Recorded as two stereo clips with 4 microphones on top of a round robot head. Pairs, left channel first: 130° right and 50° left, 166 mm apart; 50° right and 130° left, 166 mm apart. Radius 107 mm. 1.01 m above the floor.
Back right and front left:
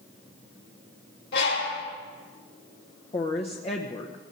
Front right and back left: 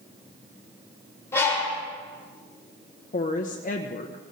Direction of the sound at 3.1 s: 80° right.